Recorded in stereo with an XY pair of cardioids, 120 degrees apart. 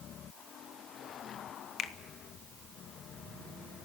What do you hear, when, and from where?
1.8 s a finger snap: 55° left, 1.1 m